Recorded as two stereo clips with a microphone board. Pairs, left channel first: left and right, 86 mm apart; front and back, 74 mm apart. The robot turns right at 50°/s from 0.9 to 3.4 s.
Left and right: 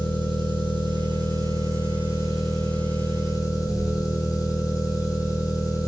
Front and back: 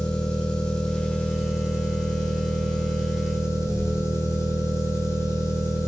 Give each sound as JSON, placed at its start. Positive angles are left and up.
{"t": 0.0, "sound": "an engine running", "azimuth_deg": -80, "distance_m": 2.0}